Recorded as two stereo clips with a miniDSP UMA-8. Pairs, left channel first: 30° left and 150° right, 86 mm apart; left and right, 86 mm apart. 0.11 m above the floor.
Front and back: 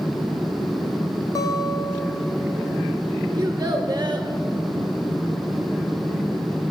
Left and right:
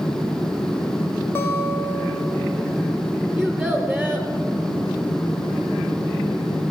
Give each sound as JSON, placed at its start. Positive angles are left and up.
{"t": 1.4, "sound": "a guitar", "azimuth_deg": 45, "distance_m": 1.0}
{"t": 3.4, "sound": "a child speaking", "azimuth_deg": 175, "distance_m": 0.9}